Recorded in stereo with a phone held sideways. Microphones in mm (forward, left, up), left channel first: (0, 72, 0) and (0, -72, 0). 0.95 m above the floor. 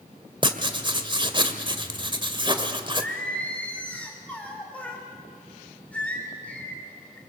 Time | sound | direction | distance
0.4 | writing | 35° right (ahead or behind) | 1.4 m
2.9 | singing | 10° left (ahead or behind) | 3.5 m